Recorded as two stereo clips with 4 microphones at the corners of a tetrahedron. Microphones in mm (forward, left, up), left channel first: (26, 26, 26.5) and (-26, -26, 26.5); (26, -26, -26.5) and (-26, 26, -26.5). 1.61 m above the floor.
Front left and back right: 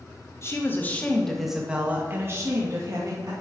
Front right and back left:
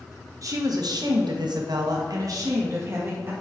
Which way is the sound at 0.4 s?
95° left.